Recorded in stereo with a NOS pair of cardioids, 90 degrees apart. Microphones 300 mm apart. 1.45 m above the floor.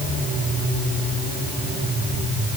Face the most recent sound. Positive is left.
No sound to turn to.